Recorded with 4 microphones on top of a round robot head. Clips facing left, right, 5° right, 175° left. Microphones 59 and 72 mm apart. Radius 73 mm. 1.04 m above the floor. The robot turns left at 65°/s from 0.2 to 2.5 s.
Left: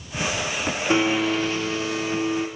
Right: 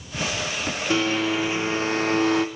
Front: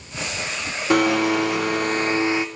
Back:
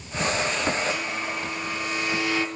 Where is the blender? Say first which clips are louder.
Left 2 dB, front 12 dB; 25° left, 0.7 m; by 2.5 s 75° right, 0.7 m.